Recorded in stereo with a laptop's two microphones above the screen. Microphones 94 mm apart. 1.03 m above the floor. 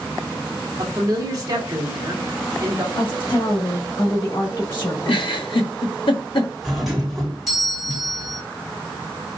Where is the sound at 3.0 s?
55° left (ahead or behind), 2.5 m.